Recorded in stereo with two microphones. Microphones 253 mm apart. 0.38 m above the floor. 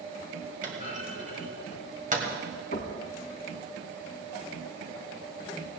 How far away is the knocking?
About 2 m.